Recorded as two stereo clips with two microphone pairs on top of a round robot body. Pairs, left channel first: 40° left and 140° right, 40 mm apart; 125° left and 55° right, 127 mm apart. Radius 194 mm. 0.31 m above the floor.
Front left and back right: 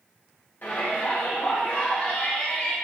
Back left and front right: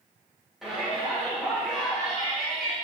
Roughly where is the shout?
Ahead left.